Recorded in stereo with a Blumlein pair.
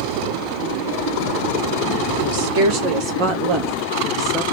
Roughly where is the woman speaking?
Ahead right.